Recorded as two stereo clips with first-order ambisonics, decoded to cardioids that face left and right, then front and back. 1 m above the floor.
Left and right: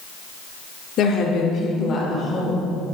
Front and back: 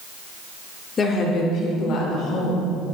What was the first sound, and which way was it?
A woman speaking, 60° left.